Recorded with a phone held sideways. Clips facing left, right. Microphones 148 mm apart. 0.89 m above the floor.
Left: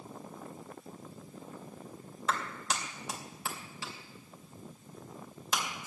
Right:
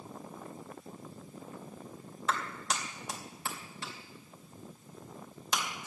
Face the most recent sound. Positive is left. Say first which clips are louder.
# even
turn(degrees=5)  # may be behind; listen again after turning